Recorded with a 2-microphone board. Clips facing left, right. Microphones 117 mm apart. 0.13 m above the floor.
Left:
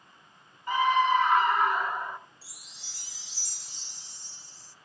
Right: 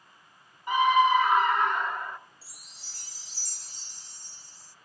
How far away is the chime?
About 0.6 m.